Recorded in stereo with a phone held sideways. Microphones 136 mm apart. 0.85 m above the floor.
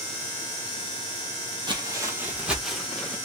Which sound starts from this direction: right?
Footsteps, at 1.7 s.